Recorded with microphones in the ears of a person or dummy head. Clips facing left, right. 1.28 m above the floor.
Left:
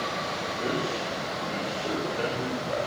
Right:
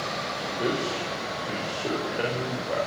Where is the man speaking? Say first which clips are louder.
Right 3 dB; 20° right (ahead or behind), 6 m.